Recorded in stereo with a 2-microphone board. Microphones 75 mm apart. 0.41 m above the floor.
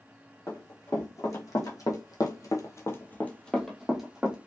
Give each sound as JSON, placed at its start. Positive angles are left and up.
{"t": 0.5, "sound": "running footsteps", "side_deg": 45, "distance_m": 1.4}